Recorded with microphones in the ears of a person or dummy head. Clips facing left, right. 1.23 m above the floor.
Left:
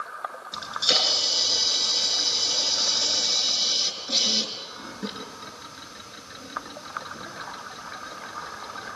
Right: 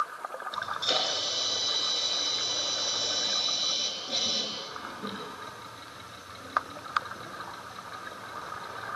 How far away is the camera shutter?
About 5.5 m.